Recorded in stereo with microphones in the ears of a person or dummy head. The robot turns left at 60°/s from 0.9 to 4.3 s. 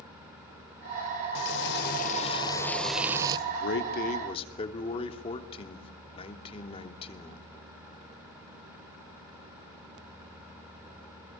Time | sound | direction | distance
1.4 | frying | 95° left | 1.7 m
3.5 | a man speaking | 85° left | 3 m